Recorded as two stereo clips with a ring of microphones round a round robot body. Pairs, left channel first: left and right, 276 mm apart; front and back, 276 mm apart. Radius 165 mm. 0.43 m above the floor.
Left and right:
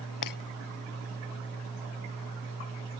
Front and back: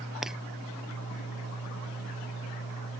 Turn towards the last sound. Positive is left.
turn(degrees=90)